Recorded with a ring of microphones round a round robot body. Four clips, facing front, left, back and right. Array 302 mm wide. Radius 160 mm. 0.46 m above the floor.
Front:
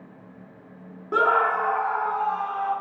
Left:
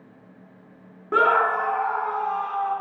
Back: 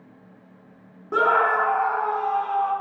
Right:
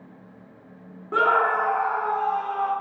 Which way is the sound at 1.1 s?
75° left.